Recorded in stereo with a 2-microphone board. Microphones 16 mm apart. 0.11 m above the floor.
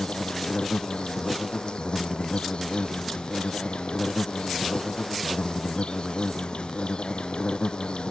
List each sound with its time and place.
0.0 s an insect: 75° left (ahead or behind)